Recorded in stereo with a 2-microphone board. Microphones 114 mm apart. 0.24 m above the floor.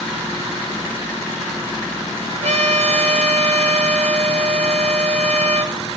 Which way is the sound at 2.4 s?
80° right.